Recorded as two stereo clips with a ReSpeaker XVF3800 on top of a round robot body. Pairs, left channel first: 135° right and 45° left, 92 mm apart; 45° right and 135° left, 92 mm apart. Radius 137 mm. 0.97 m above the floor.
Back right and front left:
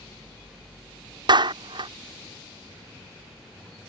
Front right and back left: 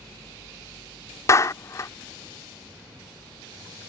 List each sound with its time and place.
1.3 s a clap: 10° left